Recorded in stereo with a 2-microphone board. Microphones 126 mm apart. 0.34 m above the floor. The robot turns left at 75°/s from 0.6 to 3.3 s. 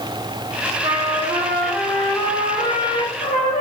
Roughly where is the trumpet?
Right.